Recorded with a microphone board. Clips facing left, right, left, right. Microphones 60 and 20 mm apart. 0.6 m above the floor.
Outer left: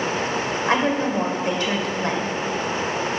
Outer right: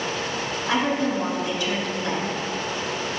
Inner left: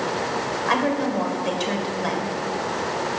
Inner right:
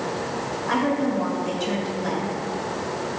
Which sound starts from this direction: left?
A woman speaking, at 0.7 s.